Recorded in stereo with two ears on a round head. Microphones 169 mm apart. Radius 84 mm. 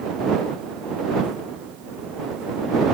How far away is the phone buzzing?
I don't hear a phone buzzing.